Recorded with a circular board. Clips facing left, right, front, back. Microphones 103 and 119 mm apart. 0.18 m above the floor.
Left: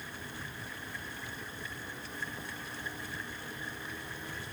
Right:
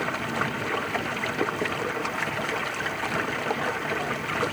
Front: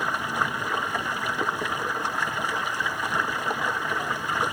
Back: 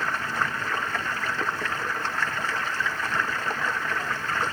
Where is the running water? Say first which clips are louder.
Right 17 dB, front 1 dB; 80° right.